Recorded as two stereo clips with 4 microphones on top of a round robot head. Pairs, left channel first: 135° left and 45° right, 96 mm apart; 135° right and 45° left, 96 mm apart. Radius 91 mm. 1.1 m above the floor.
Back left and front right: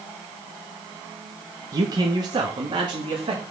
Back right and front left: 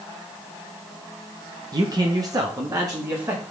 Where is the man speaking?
Straight ahead, 1.5 m; by 3.4 s 10° right, 2.5 m.